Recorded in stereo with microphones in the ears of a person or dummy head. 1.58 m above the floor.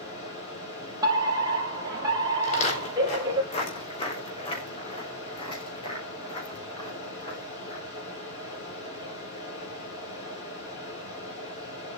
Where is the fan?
40° left (ahead or behind), 8 m.